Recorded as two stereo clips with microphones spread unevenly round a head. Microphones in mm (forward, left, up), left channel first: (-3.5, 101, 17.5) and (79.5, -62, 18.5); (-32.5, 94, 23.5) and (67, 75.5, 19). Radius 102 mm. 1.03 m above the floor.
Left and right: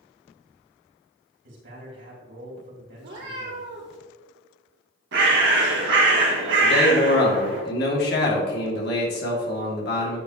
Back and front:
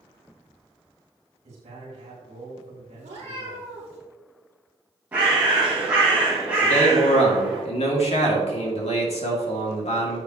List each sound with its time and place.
1.4 s a man speaking: 45° right, 3 m
3.0 s a cat meowing: 40° right, 3 m
5.1 s a bird: 85° right, 1.8 m
6.6 s a man speaking: 160° left, 2 m